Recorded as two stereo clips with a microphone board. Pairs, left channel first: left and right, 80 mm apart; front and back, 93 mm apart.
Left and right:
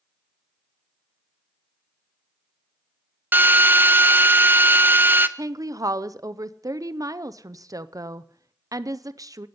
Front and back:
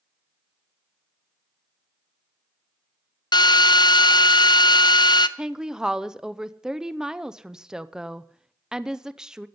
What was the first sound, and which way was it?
A drill, 30° right.